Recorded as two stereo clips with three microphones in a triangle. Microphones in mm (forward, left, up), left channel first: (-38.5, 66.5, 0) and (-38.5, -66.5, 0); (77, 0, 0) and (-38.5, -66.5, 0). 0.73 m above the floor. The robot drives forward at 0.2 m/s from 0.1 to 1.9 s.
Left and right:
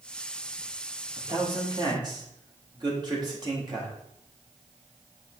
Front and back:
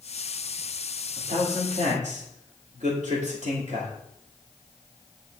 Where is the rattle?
No rattle in this recording.